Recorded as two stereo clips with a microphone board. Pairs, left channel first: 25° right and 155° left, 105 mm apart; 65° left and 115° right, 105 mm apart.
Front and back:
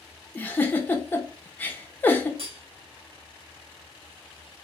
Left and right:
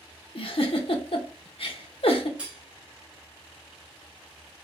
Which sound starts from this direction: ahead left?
A giggle, at 0.3 s.